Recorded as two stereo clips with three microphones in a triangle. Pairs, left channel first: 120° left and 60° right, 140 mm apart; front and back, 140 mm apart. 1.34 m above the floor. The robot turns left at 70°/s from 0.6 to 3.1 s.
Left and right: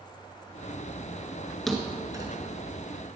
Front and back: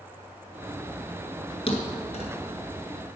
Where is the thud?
30° left, 1.8 m; by 2.3 s 15° right, 1.8 m.